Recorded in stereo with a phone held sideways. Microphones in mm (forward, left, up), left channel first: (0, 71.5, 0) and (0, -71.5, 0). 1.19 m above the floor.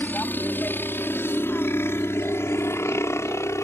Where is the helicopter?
10° left (ahead or behind); by 3.6 s 20° left (ahead or behind).